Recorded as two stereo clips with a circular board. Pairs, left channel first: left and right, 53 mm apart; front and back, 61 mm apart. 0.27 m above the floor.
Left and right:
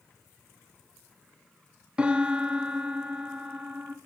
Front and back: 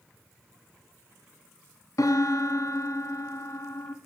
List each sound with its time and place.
2.0 s a piano: 20° right, 0.6 m